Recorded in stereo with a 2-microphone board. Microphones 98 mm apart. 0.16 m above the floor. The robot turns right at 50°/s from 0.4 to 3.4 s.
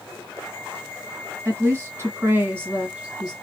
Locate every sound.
1.4 s a woman speaking: 20° right (ahead or behind), 1.6 m; by 3.3 s 10° right (ahead or behind), 1.6 m